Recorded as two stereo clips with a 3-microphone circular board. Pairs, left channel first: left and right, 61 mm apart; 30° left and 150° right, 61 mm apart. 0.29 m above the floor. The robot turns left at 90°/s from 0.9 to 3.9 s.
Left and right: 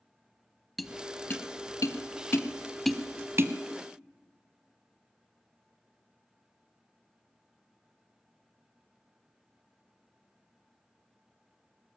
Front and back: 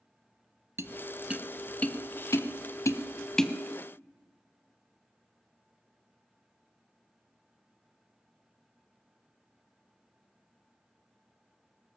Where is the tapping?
175° left, 0.8 m; by 3.5 s 60° right, 0.8 m.